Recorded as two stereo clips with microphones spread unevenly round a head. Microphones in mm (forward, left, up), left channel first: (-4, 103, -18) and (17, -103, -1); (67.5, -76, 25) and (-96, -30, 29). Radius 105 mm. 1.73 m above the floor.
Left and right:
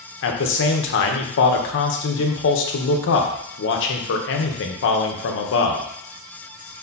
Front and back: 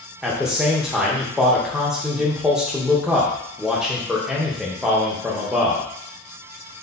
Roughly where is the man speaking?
Left.